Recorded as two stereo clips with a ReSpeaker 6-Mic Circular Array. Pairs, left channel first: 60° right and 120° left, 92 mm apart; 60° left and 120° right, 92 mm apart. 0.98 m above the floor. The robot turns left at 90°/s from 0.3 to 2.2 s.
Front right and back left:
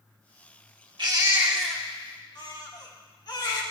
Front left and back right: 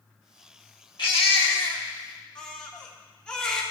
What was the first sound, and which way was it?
A baby crying, 90° left.